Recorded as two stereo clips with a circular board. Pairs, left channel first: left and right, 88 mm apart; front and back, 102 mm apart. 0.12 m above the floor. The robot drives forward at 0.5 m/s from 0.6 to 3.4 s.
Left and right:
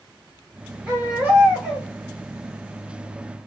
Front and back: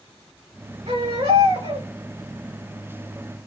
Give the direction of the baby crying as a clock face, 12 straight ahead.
5 o'clock.